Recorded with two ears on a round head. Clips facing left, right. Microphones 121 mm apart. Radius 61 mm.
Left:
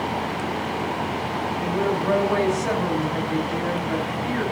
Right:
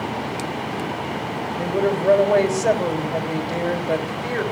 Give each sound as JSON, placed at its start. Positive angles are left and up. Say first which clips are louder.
{"t": 1.6, "sound": "a woman speaking", "louder": "right 4 dB", "side_deg": -50, "distance_m": 3.5}